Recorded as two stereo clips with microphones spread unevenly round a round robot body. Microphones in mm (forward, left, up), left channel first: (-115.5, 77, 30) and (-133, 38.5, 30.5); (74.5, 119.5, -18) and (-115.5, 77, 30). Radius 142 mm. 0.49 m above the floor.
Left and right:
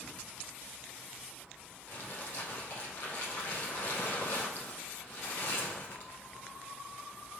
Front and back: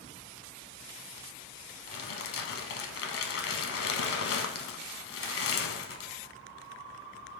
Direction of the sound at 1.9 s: 20° left.